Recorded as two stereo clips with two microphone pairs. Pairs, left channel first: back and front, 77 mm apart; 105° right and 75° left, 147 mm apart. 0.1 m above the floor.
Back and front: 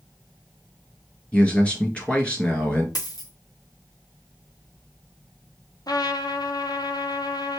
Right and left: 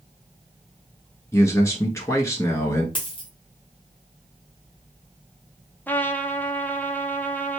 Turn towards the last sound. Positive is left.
turn(degrees=175)